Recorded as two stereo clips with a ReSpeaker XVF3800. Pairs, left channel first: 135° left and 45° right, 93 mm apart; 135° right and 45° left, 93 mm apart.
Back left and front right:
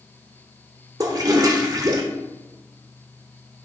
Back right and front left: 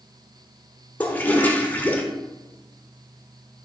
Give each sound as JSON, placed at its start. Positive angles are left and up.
{"t": 1.0, "sound": "a toilet flushing", "azimuth_deg": -70, "distance_m": 1.0}